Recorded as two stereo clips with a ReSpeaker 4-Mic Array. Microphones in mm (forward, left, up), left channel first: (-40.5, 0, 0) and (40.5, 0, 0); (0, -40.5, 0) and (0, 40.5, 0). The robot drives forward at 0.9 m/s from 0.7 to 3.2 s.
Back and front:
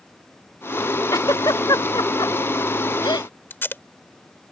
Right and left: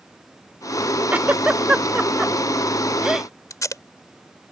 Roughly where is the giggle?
Behind left.